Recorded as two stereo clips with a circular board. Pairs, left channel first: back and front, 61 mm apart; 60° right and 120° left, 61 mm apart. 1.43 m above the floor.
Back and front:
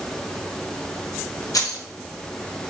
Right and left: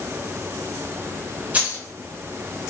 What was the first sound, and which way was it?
Keys jangling, 175° right.